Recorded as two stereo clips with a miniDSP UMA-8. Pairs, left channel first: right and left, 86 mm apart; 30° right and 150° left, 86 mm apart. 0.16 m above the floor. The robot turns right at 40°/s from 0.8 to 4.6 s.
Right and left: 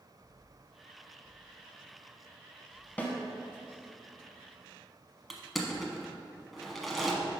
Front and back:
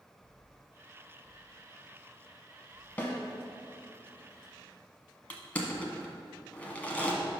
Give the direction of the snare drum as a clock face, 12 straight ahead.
2 o'clock.